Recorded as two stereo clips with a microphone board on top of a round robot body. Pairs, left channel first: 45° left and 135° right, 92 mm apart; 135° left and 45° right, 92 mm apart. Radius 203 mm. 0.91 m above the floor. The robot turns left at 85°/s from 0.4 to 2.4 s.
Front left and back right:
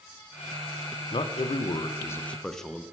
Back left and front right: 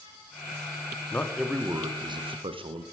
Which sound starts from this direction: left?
A man speaking, at 1.1 s.